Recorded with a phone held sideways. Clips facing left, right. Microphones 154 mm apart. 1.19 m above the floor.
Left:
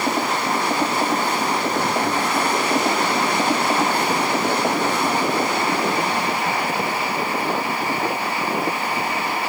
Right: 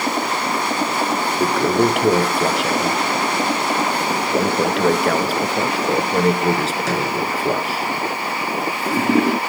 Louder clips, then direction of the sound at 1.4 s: Right 5 dB; 85° right.